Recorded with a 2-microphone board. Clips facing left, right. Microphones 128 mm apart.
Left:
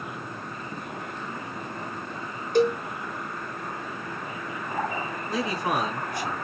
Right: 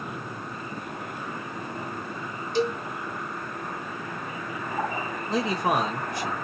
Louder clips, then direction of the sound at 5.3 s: Right 3 dB; 25° right (ahead or behind).